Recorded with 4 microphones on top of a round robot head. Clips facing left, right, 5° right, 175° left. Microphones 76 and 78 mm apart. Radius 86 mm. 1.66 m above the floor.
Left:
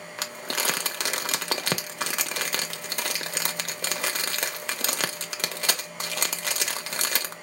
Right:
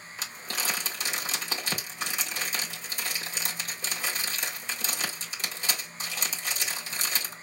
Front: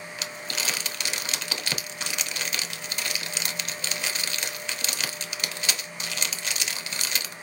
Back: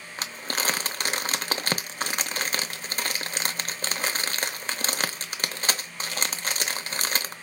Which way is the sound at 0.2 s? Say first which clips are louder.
Left 5 dB, back 5 dB; 125° left.